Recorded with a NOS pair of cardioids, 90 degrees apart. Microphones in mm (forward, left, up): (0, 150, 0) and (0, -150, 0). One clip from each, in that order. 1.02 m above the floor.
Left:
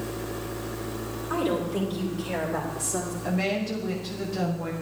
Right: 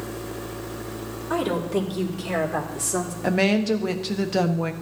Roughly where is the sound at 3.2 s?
Ahead right.